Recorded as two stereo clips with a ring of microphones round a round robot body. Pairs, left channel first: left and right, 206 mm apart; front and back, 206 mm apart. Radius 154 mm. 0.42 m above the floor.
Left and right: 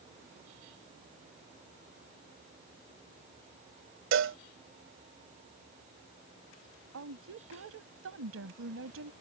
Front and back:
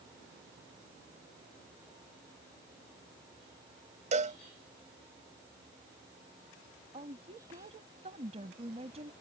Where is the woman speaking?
115° right.